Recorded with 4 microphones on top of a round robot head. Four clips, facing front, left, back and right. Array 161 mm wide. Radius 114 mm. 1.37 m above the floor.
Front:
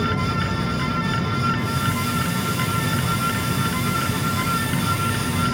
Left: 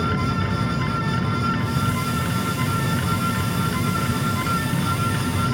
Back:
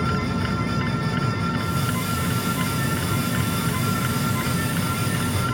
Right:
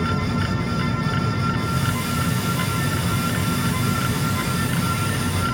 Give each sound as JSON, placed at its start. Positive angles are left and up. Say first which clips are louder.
{"t": 1.6, "sound": "a hiss", "louder": "even, front 2 dB", "azimuth_deg": -100, "distance_m": 1.0}